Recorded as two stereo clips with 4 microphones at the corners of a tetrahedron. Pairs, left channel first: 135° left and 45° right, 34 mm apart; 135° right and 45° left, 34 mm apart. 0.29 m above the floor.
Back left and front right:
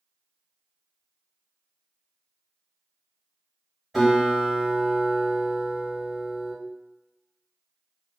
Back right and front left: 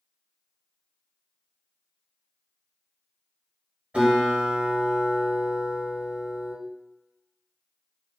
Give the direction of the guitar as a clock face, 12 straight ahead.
11 o'clock.